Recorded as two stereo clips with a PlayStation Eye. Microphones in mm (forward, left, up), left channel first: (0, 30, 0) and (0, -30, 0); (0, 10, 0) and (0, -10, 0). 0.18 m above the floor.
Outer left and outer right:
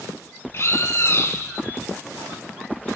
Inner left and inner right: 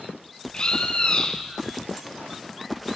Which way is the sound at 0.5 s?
45° left (ahead or behind).